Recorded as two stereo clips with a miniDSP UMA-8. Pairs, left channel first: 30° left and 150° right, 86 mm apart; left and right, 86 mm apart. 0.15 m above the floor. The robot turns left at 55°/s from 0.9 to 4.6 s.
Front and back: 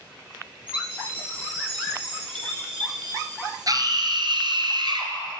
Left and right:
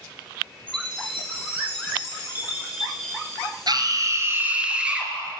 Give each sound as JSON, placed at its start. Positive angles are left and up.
{"t": 0.7, "sound": "a chime", "azimuth_deg": -75, "distance_m": 3.0}
{"t": 3.7, "sound": "a scream", "azimuth_deg": -115, "distance_m": 2.5}